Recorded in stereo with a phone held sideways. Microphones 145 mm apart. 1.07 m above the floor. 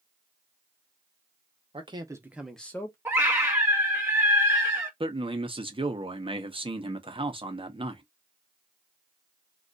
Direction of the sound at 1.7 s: 40° right (ahead or behind).